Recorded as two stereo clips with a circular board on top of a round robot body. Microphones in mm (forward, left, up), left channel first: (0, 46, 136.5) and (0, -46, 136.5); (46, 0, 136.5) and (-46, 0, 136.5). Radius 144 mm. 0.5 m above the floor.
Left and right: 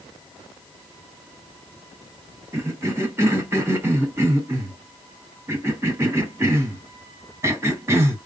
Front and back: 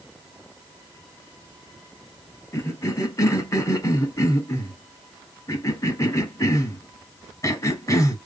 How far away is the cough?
About 1.6 m.